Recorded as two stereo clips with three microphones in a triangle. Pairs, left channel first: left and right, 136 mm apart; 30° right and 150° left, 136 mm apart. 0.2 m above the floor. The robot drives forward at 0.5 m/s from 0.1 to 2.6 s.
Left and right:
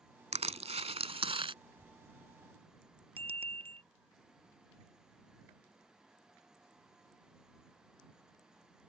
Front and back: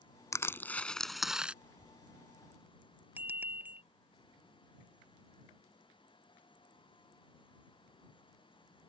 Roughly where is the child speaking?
Left.